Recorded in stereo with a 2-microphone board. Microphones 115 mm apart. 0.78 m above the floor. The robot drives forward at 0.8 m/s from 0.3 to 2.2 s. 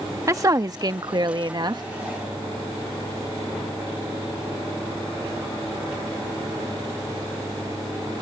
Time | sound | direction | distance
0.3 | a woman speaking | 30° right (ahead or behind) | ?